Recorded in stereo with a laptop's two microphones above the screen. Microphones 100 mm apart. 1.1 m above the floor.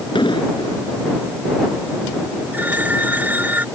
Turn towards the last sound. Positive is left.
turn(degrees=-20)  # may be behind; listen again after turning